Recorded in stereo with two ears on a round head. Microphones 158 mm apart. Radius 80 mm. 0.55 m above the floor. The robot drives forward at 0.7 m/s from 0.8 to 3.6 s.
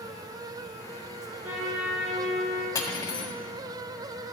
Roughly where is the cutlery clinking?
Left.